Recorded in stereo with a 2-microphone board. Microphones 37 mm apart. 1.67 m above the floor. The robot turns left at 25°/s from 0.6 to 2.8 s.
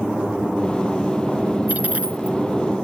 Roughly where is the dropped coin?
Right.